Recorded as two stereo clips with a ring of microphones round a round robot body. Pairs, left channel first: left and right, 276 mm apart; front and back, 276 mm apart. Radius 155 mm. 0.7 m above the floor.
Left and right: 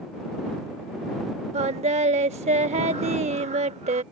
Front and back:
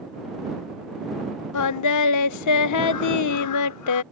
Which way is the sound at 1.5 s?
20° right.